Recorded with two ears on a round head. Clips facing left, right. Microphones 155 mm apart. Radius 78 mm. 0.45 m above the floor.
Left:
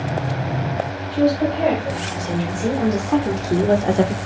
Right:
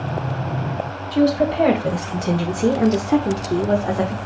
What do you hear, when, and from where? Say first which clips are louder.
1.1 s a woman speaking: right 1 dB; 70° right (ahead or behind), 2.5 m; by 4.2 s 40° left (ahead or behind), 1.4 m